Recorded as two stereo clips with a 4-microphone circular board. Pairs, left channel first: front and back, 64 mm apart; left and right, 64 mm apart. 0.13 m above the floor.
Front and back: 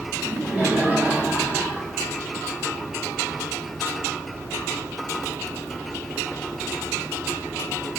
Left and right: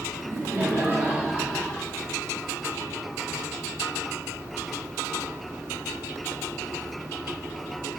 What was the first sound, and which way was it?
Laughter, 120° right.